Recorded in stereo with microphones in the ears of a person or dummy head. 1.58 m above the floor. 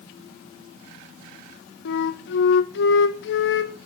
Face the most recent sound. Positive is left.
turn(degrees=70)  # may be behind; listen again after turning